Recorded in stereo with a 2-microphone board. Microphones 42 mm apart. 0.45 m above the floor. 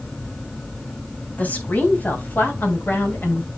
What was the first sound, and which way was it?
A woman speaking, 40° left (ahead or behind).